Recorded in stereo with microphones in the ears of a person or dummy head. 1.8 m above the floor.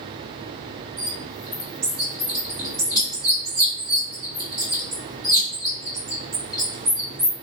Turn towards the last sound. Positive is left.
turn(degrees=-25)  # may be behind; listen again after turning